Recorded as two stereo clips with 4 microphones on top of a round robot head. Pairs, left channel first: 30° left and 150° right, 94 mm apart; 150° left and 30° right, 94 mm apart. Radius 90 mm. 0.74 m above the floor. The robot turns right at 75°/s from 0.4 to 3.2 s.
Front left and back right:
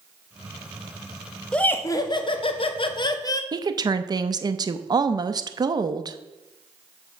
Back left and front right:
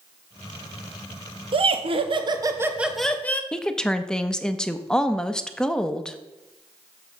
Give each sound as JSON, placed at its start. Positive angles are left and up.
{"t": 1.5, "sound": "laughter", "azimuth_deg": -50, "distance_m": 1.0}
{"t": 3.5, "sound": "a woman speaking", "azimuth_deg": -130, "distance_m": 0.6}